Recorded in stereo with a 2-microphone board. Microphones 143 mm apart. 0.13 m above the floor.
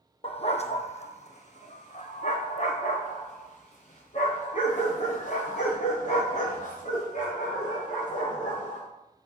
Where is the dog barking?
45° left (ahead or behind), 1.1 m; by 8.8 s 60° left (ahead or behind), 8 m.